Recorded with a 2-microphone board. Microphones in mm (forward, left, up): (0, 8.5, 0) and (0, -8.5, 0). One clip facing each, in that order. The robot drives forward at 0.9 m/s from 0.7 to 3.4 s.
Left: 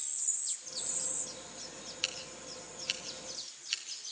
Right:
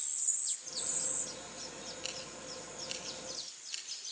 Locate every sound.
2.0 s scissors: 70° left (ahead or behind), 4 m; by 4.1 s 85° left, 3.5 m